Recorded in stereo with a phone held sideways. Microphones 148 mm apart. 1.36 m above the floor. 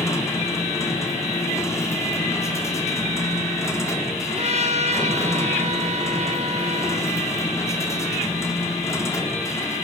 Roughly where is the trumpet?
Right.